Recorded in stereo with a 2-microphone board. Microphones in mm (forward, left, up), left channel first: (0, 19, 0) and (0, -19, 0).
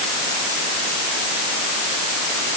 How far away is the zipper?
No zipper in this recording.